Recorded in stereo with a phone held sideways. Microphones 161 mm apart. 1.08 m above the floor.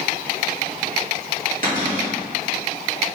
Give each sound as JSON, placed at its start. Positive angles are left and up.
{"t": 1.6, "sound": "a cupboard door", "side_deg": -60, "distance_m": 2.5}